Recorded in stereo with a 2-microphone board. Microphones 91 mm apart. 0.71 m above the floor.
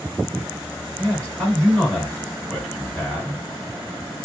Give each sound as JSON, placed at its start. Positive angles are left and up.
{"t": 1.0, "sound": "a man speaking", "side_deg": 10, "distance_m": 2.5}